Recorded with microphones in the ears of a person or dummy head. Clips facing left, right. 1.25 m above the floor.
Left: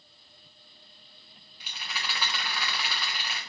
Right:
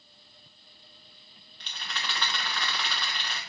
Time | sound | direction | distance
1.6 | a rattle | 10° left (ahead or behind) | 0.6 m